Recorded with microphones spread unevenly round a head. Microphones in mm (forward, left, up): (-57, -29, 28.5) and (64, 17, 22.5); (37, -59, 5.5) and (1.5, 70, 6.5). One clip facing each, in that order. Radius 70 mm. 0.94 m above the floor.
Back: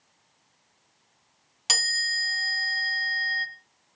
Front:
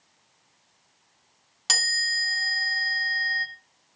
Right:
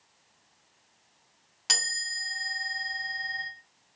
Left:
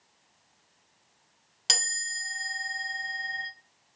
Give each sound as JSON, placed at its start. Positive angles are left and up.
{"t": 1.7, "sound": "a chime", "azimuth_deg": 140, "distance_m": 1.0}